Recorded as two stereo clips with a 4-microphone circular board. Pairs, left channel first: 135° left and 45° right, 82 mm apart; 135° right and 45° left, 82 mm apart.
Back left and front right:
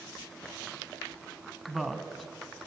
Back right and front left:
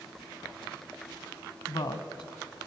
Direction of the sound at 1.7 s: 135° right.